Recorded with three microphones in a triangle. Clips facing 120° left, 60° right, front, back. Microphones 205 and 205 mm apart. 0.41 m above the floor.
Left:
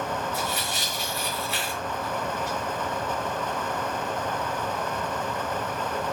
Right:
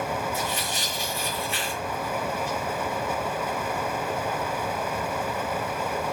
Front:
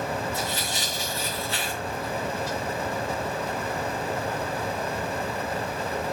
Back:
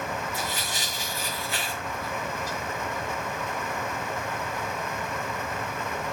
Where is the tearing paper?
110° left, 6.5 m.